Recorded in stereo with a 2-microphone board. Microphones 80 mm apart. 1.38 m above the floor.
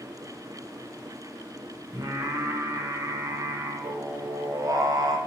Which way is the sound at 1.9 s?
50° right (ahead or behind).